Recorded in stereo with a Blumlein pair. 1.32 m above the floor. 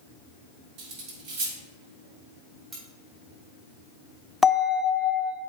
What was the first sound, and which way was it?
Cutlery clinking, 40° right.